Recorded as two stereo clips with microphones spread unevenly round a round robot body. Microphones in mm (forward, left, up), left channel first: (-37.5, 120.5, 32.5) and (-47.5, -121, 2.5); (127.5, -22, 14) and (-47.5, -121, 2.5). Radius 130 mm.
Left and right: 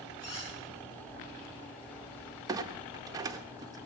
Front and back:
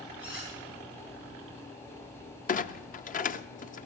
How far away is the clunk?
About 0.5 m.